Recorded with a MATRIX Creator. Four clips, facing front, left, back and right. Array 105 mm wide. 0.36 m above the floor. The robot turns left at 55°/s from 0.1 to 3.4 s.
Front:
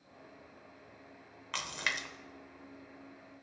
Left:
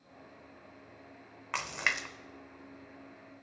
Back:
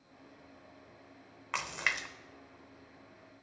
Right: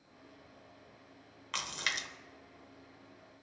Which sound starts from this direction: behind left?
A splash, at 1.5 s.